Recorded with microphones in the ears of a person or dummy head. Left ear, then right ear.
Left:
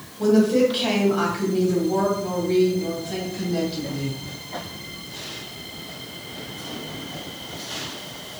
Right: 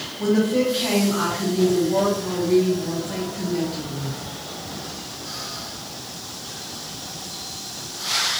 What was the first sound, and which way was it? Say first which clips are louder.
A woman speaking: left 3 dB; 20° left (ahead or behind).